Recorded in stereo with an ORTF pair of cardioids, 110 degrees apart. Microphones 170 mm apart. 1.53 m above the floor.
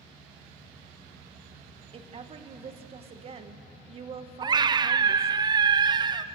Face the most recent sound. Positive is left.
turn(degrees=-25)